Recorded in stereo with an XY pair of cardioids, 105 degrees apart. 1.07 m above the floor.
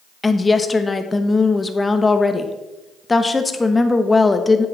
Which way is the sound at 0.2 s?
20° left.